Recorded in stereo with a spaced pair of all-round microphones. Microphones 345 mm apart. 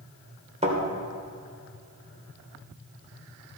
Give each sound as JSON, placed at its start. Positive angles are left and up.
{"t": 0.6, "sound": "a thud", "side_deg": -20, "distance_m": 3.0}